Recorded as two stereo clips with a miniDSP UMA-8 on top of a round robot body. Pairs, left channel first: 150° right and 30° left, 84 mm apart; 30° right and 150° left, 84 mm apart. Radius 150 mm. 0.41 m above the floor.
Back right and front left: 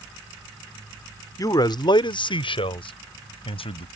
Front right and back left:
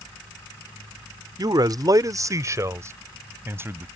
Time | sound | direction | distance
1.4 | a man speaking | 175° left | ?